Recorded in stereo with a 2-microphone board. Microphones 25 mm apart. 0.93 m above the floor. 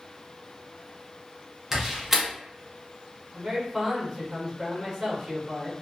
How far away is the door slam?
About 0.7 m.